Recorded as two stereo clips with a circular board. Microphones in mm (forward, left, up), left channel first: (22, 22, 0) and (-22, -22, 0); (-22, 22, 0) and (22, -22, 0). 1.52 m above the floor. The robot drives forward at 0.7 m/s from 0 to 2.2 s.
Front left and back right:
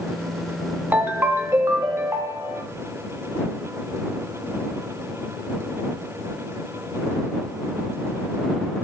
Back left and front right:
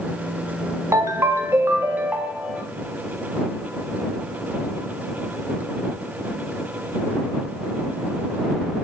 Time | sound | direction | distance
0.9 | a ringtone | 75° right | 1.7 m